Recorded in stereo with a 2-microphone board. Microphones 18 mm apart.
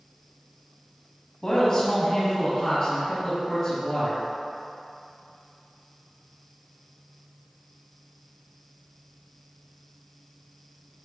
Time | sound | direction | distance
1.4 | a man speaking | 45° left (ahead or behind) | 1.2 m